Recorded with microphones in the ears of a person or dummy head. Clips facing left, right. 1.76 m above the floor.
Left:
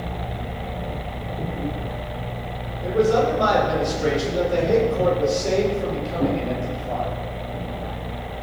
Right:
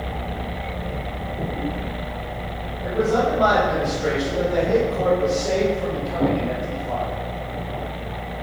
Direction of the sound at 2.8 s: 45° left (ahead or behind).